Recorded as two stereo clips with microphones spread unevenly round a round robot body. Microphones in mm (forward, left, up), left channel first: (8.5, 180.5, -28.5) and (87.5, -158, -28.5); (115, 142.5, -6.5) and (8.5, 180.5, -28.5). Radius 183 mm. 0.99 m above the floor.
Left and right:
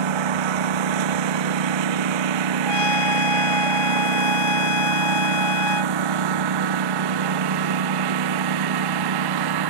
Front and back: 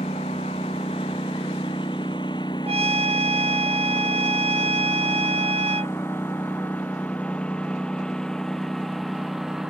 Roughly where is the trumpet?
Behind left.